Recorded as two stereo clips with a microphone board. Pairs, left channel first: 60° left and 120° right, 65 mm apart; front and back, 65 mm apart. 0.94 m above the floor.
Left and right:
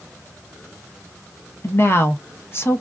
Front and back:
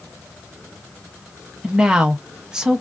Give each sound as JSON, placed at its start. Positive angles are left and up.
{"t": 1.6, "sound": "a woman speaking", "azimuth_deg": 105, "distance_m": 0.7}